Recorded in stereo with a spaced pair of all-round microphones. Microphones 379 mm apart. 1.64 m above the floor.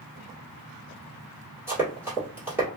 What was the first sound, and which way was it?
Running footsteps, 5° right (ahead or behind).